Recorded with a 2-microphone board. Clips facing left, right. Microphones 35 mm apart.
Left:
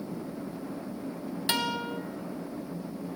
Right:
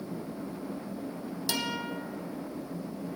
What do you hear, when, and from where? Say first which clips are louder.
1.5 s a guitar: left 3 dB; 40° left (ahead or behind), 0.9 m